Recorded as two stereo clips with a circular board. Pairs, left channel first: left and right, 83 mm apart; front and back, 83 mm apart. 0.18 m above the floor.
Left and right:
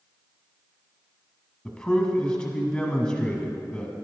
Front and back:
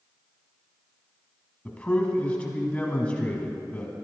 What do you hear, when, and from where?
1.6 s a man speaking: 35° left, 1.4 m